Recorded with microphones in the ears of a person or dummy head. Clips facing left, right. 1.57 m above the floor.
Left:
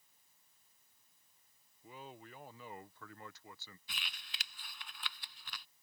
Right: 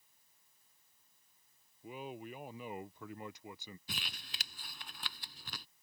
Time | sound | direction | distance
1.8 | a man speaking | 20° right (ahead or behind) | ?
3.9 | crumpling | 40° right (ahead or behind) | ?